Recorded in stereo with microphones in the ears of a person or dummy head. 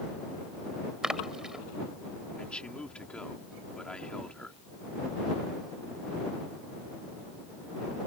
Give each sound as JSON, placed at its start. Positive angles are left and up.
{"t": 1.0, "sound": "a splash", "side_deg": 0}
{"t": 2.4, "sound": "a man speaking", "side_deg": 5}